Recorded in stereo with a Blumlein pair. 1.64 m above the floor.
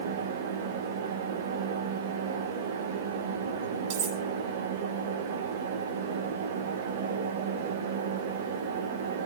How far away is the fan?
About 1.7 m.